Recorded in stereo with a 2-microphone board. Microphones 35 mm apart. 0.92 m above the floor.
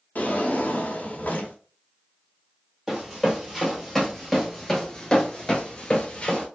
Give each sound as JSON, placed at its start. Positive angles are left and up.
{"t": 0.1, "sound": "a drawer", "side_deg": 50, "distance_m": 0.6}
{"t": 2.9, "sound": "running footsteps", "side_deg": -10, "distance_m": 1.5}